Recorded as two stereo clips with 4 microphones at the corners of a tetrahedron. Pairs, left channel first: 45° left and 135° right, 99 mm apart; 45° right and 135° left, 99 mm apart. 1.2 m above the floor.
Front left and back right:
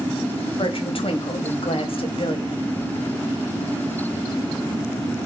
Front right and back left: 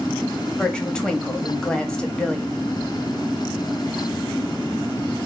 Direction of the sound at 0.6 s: 35° left.